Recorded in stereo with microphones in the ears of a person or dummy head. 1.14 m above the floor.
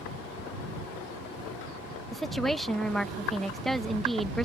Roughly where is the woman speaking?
Centre.